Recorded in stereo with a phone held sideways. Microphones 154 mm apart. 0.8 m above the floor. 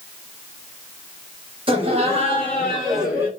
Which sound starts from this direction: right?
Laughter, at 1.7 s.